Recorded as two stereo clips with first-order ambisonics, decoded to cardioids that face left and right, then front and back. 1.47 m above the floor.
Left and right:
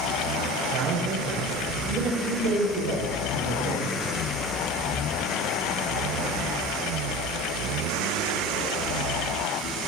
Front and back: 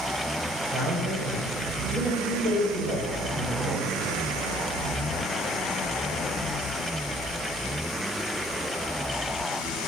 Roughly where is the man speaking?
Right.